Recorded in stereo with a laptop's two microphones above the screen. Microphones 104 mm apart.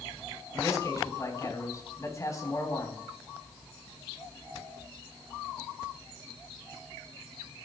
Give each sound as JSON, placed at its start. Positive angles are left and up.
{"t": 0.5, "sound": "a man speaking", "side_deg": 30, "distance_m": 3.5}